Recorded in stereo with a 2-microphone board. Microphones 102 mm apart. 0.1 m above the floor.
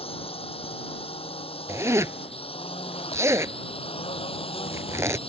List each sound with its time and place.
0.0 s a drone: 70° left (ahead or behind); by 5.3 s 65° left (ahead or behind)
1.7 s a zipper: 30° right (ahead or behind)